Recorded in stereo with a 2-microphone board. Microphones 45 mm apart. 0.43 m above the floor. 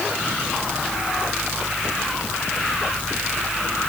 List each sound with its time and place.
Only background noise.